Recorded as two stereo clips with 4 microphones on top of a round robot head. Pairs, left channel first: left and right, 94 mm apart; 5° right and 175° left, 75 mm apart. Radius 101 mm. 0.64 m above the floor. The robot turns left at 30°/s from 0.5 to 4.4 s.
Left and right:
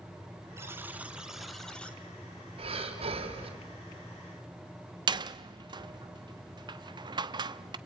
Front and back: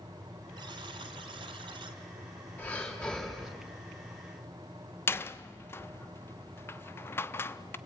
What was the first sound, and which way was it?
A buzzer, 150° right.